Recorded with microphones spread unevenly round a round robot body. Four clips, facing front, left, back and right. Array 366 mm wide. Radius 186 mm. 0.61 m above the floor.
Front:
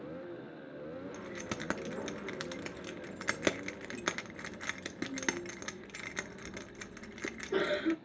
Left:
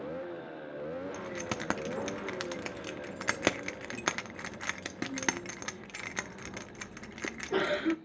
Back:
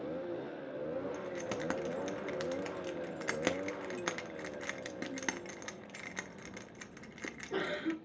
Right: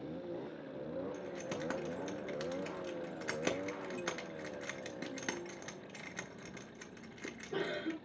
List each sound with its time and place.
1.1 s keys jangling: 55° left, 0.8 m